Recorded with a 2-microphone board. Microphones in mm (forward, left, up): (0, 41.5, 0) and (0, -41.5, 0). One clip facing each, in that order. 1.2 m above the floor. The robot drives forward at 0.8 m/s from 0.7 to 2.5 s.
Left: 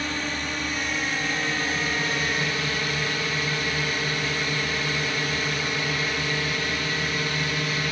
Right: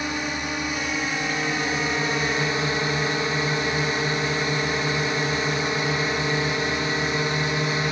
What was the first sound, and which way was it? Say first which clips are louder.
A drone: right 2 dB; 15° right (ahead or behind).